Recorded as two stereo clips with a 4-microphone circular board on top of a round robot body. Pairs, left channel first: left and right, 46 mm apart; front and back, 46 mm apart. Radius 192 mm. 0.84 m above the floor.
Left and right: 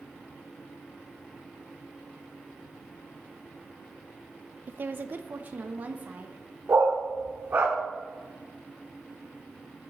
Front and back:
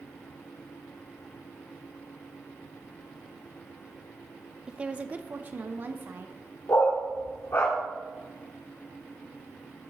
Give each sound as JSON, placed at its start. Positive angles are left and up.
{"t": 4.7, "sound": "a woman speaking", "azimuth_deg": -115, "distance_m": 0.5}
{"t": 6.7, "sound": "a dog barking", "azimuth_deg": -45, "distance_m": 1.0}